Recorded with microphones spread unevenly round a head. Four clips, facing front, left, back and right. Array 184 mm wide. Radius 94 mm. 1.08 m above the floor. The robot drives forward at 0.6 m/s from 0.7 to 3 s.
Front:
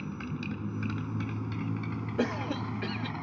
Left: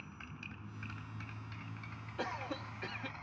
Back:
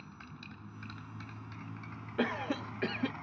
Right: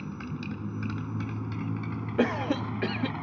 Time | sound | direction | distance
0.0 | a motorcycle | 50° right | ?
2.2 | a cough | 80° right | ?